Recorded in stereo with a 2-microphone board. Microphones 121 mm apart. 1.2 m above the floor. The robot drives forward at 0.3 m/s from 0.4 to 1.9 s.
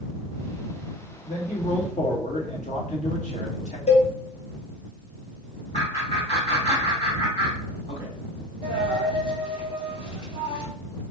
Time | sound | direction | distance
1.3 | a man speaking | 85° left | 1.0 m
3.9 | a cowbell | 65° left (ahead or behind) | 0.8 m
5.7 | laughter | 60° left (ahead or behind) | 2 m
8.6 | a dropped coin | 40° left (ahead or behind) | 2 m